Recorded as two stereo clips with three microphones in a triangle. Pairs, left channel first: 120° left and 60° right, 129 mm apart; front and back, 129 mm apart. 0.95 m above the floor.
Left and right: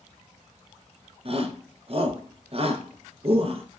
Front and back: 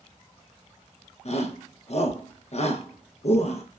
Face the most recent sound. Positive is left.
turn(degrees=-25)